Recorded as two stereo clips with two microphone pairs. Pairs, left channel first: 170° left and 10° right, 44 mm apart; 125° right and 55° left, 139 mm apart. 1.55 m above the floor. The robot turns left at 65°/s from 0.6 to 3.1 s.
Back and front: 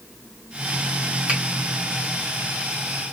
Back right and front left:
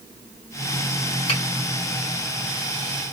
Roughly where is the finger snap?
Right.